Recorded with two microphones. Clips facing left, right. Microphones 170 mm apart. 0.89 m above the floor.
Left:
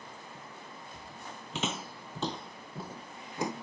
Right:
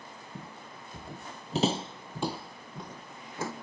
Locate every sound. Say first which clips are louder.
0.3 s footsteps: right 2 dB; 65° right (ahead or behind); by 3.5 s 20° left (ahead or behind)